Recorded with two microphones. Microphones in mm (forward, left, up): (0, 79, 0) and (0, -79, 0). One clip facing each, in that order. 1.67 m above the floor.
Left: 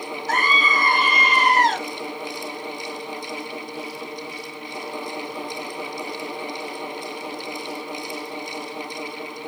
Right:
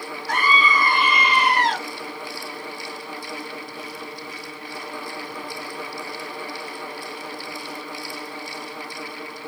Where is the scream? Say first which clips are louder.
Right 2 dB; 45° left (ahead or behind), 2 m.